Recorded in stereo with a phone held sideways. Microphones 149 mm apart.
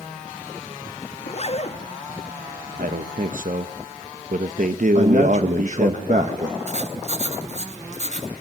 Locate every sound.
1.2 s a zipper: 45° left (ahead or behind), 1.7 m
2.8 s a man speaking: 65° right (ahead or behind), 1.0 m
5.0 s a man speaking: 55° right (ahead or behind), 1.6 m
6.7 s writing: 50° right (ahead or behind), 2.5 m